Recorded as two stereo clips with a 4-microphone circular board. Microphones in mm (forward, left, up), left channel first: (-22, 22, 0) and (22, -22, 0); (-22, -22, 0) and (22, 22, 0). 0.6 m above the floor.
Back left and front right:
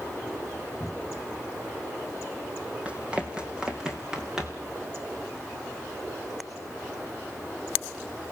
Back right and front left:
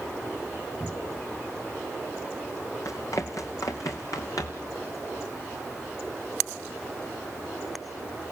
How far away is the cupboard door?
About 4.5 m.